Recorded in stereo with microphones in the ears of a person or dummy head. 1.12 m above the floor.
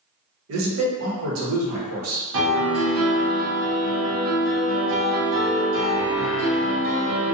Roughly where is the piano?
Right.